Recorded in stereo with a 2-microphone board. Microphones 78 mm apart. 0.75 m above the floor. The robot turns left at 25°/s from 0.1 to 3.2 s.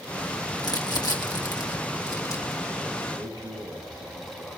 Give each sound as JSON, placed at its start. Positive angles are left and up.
{"t": 0.6, "sound": "crumpling", "side_deg": 55, "distance_m": 1.3}
{"t": 3.1, "sound": "a man speaking", "side_deg": -55, "distance_m": 6.5}